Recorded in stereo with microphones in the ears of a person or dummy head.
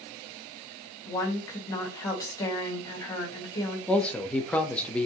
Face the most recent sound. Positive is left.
turn(degrees=5)  # may be behind; listen again after turning